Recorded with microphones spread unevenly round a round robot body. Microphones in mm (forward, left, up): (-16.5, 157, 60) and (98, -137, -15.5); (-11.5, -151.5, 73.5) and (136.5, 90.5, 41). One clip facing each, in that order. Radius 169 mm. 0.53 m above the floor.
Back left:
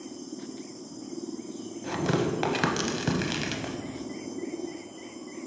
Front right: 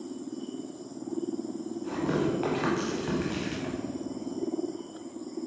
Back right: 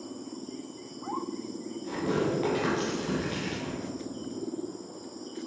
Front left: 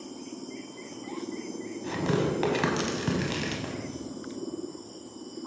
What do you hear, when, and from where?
1.8 s tearing paper: 100° left, 0.8 m